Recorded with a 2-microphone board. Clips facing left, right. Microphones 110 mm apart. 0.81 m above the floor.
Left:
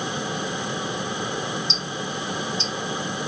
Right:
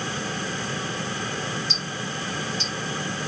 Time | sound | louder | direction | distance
1.7 | ticking | left 2 dB | 20° left (ahead or behind) | 1.2 m